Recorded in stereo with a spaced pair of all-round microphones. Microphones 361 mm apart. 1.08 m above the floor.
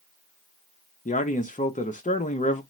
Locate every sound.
1.1 s a man speaking: 20° left (ahead or behind), 0.5 m